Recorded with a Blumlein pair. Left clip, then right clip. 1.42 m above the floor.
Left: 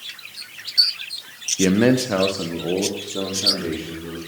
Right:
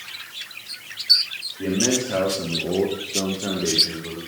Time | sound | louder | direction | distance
1.6 | a man speaking | left 5 dB | 40° left | 0.8 m